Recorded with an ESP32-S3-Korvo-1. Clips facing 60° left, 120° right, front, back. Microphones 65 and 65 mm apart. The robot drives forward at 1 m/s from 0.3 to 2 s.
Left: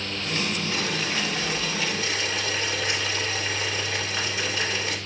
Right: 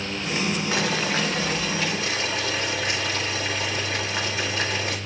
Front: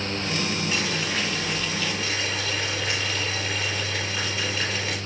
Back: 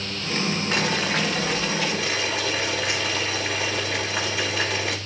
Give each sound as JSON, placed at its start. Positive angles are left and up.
{"t": 0.7, "sound": "boiling", "azimuth_deg": -135, "distance_m": 1.0}